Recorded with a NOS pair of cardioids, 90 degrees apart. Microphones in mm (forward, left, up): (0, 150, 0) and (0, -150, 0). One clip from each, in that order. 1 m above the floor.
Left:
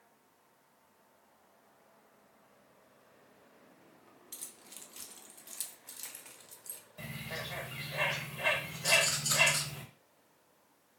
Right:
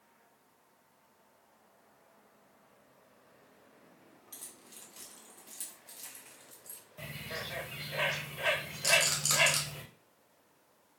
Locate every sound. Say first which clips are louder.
4.3 s keys jangling: left 2 dB; 25° left, 0.6 m
7.0 s a bird: right 1 dB; 10° right, 1.0 m
8.8 s a rattle: right 1 dB; 70° right, 1.1 m